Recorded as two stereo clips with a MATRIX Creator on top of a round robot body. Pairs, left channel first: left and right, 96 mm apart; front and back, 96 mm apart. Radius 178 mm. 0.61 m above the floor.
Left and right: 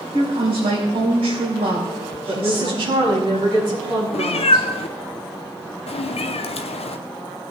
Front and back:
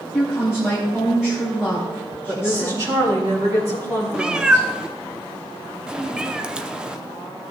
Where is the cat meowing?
100° left, 0.7 m.